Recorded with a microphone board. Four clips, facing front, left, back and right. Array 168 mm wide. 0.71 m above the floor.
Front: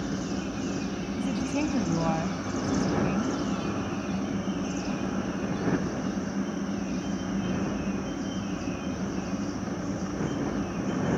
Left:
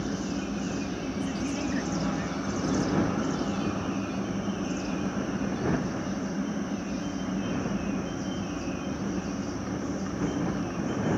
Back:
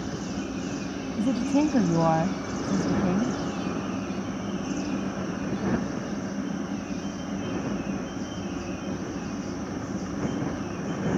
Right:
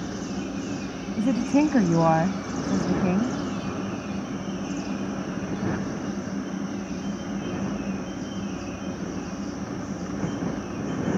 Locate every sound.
1.2 s a woman speaking: 115° right